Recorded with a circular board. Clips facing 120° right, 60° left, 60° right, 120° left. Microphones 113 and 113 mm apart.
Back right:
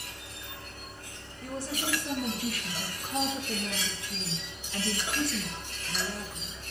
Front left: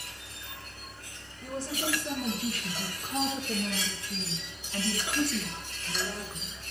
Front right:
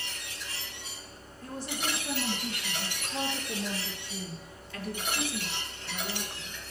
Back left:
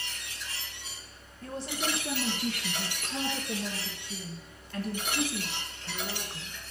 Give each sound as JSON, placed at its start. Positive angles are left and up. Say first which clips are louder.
{"t": 1.4, "sound": "a woman speaking", "louder": "front left 1 dB, back left 2 dB", "azimuth_deg": 125, "distance_m": 4.0}